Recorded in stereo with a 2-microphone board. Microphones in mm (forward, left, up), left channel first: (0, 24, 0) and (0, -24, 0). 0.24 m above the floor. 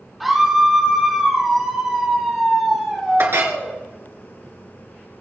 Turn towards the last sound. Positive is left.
turn(degrees=-55)  # may be behind; listen again after turning